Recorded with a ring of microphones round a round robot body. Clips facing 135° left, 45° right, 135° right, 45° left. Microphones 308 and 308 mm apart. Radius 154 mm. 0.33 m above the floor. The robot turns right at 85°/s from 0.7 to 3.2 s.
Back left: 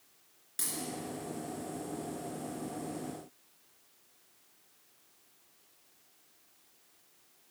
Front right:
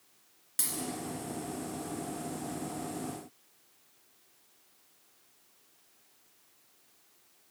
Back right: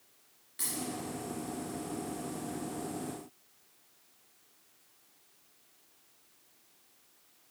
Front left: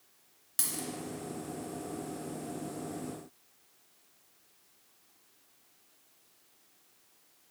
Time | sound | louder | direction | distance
0.6 | a dropped coin | front right 2 dB, back right 1 dB | 30° left | 2 m